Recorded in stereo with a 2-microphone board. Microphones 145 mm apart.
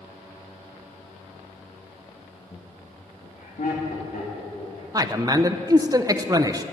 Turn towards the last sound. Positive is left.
turn(degrees=-25)  # may be behind; listen again after turning